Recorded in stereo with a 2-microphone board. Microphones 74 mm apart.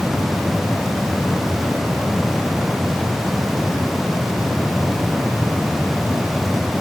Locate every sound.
Only background noise.